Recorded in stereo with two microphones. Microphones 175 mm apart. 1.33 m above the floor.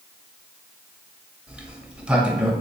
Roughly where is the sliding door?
Centre.